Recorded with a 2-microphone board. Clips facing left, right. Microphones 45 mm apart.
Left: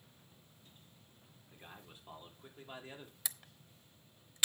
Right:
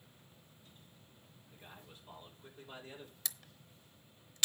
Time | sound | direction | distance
1.5 | a man speaking | 25° left (ahead or behind) | 4 m
3.2 | a camera shutter | 15° left (ahead or behind) | 0.8 m